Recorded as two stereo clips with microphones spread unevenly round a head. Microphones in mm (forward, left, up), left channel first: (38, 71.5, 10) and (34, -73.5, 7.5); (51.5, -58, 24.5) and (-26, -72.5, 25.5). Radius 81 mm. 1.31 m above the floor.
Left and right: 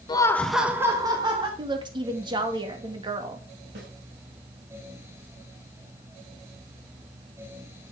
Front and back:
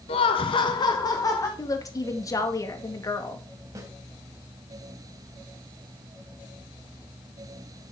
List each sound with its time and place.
0.1 s laughter: 25° left, 1.1 m; by 1.5 s 35° right, 2.0 m
1.6 s a woman speaking: 35° right, 2.5 m
3.8 s a snare drum: 125° right, 4.5 m